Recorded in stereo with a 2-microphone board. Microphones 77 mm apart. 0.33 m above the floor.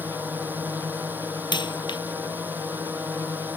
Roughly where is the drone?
Right.